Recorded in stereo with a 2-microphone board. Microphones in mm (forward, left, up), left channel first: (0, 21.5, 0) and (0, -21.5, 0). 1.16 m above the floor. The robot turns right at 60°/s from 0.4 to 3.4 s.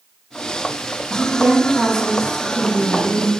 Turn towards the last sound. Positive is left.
turn(degrees=95)